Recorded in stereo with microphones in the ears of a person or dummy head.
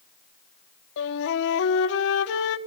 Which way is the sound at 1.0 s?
65° left (ahead or behind).